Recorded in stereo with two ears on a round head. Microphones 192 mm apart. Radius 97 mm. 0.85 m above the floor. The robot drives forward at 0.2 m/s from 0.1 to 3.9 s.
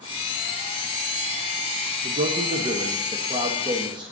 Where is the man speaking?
30° right (ahead or behind), 0.5 m; by 4.1 s 20° right (ahead or behind), 0.8 m.